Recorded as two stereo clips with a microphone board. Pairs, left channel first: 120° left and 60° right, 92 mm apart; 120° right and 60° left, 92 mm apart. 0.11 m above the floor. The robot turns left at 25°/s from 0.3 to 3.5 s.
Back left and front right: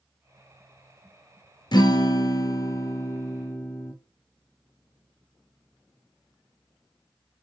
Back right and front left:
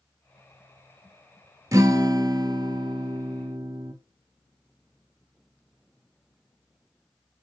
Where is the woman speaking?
No woman speaking in this recording.